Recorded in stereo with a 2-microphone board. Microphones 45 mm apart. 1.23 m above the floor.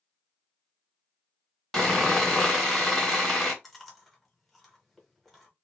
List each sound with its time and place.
1.7 s sawing: 5° left (ahead or behind), 1.4 m
3.6 s chewing: centre (ahead or behind), 1.0 m